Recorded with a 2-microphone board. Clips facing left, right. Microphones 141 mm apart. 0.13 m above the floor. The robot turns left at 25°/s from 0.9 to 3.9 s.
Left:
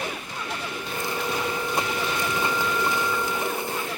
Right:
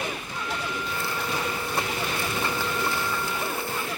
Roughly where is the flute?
Right.